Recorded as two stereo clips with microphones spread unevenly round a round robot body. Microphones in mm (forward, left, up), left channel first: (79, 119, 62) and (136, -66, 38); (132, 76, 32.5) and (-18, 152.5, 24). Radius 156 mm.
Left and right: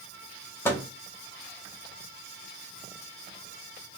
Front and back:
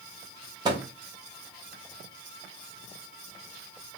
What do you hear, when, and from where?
0.7 s a microwave: 170° right, 0.6 m